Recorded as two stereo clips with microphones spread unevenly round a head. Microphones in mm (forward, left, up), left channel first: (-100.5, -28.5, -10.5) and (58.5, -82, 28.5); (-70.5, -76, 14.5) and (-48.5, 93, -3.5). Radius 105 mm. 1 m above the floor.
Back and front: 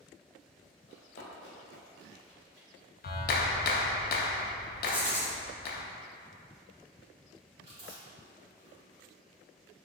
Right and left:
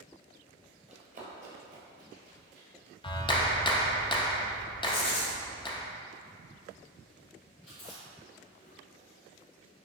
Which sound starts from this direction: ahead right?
Chewing, at 7.6 s.